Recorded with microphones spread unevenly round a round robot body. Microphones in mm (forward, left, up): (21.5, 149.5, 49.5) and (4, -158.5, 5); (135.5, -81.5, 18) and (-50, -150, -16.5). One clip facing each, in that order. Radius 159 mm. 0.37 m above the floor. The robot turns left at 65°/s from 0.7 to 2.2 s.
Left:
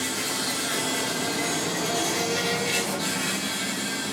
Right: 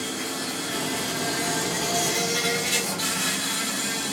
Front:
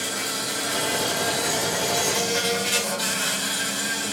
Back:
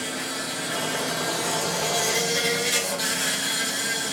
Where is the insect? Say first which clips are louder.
Even, even; 5° right, 0.8 m; by 4.1 s 100° right, 0.8 m.